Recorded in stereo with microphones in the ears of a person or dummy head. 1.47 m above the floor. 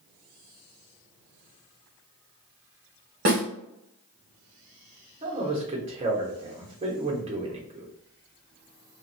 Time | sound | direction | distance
3.2 | a snare drum | 50° right (ahead or behind) | 0.9 m
5.2 | a man speaking | 25° right (ahead or behind) | 0.9 m